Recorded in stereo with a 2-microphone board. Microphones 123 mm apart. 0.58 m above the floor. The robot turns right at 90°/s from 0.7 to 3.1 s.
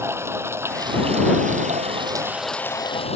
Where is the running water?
160° right; by 3.2 s 55° left.